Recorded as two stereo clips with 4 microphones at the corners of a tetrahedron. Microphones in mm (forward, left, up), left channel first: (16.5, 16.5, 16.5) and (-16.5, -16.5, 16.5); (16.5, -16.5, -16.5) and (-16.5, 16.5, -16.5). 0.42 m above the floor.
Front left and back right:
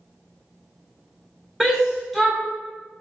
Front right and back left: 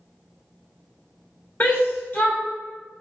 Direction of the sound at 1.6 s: 40° right.